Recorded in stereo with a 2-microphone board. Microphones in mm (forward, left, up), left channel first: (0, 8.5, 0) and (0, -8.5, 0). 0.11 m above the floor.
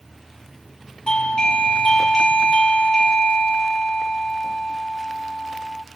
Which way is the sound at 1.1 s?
55° left (ahead or behind).